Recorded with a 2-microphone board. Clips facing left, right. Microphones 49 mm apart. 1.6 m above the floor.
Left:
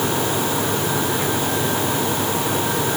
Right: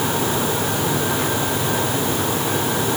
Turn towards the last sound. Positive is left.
No sound to turn to.